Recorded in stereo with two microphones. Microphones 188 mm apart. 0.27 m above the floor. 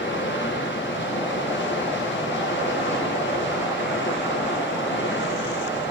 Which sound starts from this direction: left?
Running water, at 0.0 s.